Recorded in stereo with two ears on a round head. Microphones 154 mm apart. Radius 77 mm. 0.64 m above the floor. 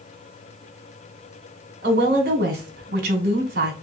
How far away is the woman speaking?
About 2 m.